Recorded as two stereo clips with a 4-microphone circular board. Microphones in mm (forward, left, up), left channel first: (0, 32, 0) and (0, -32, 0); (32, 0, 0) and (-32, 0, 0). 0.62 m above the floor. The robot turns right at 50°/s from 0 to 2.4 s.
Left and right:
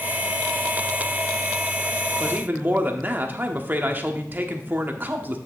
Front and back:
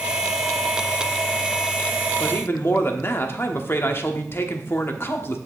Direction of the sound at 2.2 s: 50° right.